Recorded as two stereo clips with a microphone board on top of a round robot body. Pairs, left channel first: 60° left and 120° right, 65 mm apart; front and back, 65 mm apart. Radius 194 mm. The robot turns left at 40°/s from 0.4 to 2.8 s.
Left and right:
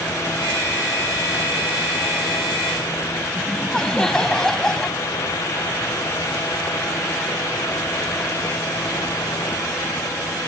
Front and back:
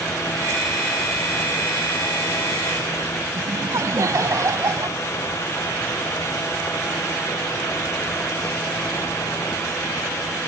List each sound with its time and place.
3.4 s laughter: 140° left